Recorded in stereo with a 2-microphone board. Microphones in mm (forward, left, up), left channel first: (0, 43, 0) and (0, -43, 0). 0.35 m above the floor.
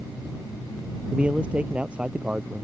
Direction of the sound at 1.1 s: 15° right (ahead or behind).